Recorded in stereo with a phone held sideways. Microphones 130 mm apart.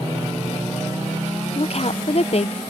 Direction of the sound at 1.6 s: 50° left (ahead or behind).